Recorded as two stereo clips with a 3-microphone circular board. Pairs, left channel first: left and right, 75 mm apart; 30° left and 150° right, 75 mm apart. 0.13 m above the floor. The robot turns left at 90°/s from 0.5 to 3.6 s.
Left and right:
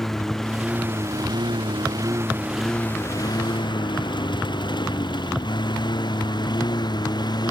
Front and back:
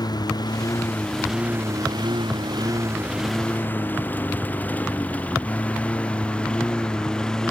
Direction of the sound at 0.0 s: 5° left.